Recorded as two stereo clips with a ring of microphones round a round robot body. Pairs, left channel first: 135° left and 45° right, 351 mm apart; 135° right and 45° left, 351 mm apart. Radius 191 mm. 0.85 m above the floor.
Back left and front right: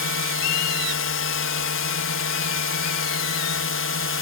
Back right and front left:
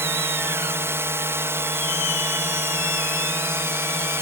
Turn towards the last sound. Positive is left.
turn(degrees=125)